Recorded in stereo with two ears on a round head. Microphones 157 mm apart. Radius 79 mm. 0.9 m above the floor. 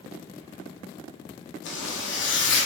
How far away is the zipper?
About 0.8 m.